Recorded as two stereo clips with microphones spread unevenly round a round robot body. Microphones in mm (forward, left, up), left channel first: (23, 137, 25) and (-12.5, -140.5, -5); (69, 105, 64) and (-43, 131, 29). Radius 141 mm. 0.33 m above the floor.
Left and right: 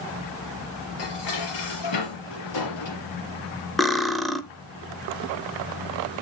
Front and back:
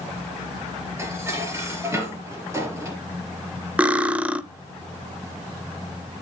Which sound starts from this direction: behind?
Cutlery clinking, at 3.8 s.